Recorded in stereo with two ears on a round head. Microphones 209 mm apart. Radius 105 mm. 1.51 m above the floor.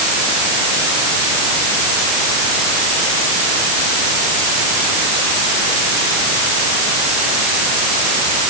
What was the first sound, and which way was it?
Only background noise.